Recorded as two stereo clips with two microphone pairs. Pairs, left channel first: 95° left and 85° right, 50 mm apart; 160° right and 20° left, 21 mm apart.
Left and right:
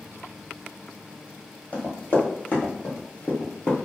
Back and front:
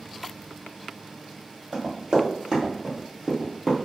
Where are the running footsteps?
45° left, 1.7 m; by 3.9 s 95° left, 1.1 m.